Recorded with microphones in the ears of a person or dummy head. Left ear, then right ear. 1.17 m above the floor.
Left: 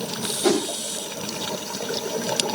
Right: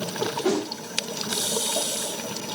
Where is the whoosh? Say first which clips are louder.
Left 6 dB; 25° left (ahead or behind), 6 m.